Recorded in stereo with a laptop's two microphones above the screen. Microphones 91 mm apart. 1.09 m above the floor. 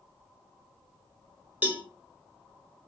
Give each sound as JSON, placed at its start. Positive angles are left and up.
{"t": 1.6, "sound": "a cowbell", "side_deg": -15, "distance_m": 0.7}